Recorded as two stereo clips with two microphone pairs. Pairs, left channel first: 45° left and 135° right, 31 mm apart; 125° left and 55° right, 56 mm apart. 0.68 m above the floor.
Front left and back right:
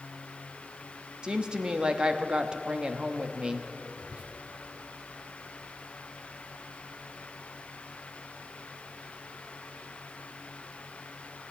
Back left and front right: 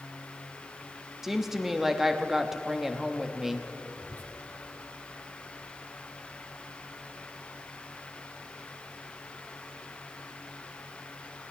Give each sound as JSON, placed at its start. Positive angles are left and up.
{"t": 1.2, "sound": "a woman speaking", "azimuth_deg": -130, "distance_m": 0.9}
{"t": 4.0, "sound": "whispering", "azimuth_deg": 180, "distance_m": 1.7}